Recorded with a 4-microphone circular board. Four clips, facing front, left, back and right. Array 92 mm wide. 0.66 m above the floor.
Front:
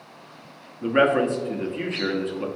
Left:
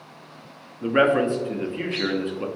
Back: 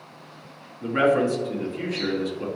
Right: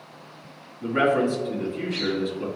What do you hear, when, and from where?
0.8 s a man speaking: 55° left, 0.7 m